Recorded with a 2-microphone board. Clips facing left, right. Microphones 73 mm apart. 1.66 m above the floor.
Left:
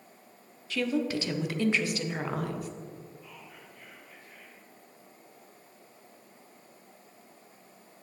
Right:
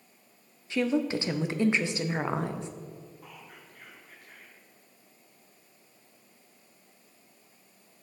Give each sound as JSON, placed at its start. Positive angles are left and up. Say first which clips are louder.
{"t": 0.7, "sound": "a woman speaking", "louder": "right 2 dB", "side_deg": -25, "distance_m": 0.6}
{"t": 3.2, "sound": "whispering", "louder": "even", "side_deg": -55, "distance_m": 1.5}